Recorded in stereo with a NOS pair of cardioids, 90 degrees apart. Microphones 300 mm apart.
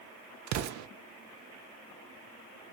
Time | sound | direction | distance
0.5 | an explosion | 65° right | 0.5 m